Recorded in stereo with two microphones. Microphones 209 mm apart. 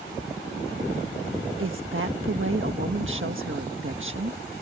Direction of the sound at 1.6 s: 75° right (ahead or behind).